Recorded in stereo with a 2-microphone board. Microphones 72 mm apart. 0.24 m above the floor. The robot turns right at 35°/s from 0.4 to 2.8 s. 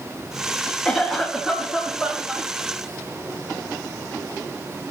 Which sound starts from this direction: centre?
A cough, at 0.8 s.